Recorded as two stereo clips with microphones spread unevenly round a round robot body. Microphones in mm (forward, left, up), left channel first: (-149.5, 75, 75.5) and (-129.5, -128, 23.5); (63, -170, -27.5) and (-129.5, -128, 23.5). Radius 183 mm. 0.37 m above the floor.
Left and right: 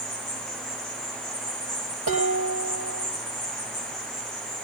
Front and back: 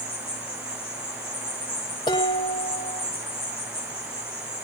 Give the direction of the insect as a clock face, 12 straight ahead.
4 o'clock.